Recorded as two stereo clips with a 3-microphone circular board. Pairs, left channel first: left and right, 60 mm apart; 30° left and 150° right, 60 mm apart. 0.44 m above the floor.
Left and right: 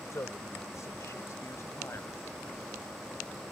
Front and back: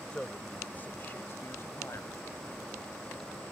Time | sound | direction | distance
0.1 | a man speaking | 100° left | ?